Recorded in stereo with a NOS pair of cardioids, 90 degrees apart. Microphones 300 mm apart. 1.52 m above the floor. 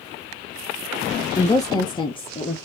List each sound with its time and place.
1.4 s a woman speaking: 10° left, 0.9 m; by 2.6 s 20° left, 1.5 m